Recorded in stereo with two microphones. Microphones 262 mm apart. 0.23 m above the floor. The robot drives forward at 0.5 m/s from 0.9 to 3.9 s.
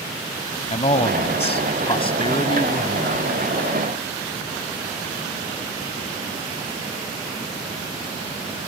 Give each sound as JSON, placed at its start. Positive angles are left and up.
{"t": 0.7, "sound": "a man speaking", "side_deg": 25}